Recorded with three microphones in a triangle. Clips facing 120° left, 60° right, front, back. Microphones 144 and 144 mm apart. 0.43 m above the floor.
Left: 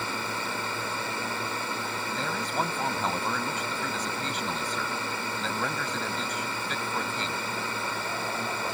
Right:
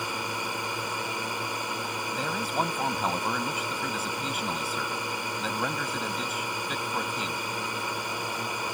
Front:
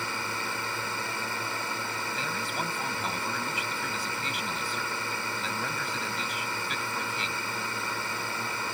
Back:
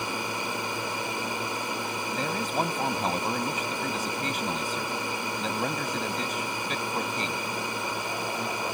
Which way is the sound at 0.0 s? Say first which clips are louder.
Even, back 3 dB; 125° right.